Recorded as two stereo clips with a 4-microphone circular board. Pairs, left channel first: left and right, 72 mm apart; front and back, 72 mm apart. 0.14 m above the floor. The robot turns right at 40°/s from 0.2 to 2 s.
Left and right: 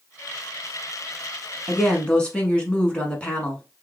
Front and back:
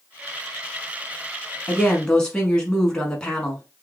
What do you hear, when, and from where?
1.7 s a woman speaking: 40° left, 1.0 m; by 3.6 s 50° left, 1.0 m